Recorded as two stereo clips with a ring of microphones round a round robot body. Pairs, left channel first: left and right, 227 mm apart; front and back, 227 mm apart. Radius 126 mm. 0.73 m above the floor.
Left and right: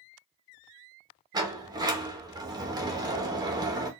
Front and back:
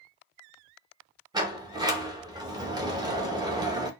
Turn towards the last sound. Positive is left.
turn(degrees=-135)